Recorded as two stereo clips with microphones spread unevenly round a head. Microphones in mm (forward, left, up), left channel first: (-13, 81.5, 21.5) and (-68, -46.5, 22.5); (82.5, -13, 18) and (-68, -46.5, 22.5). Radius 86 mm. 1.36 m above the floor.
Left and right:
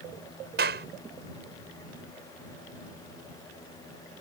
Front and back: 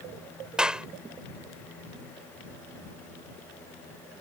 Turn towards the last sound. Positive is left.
turn(degrees=-85)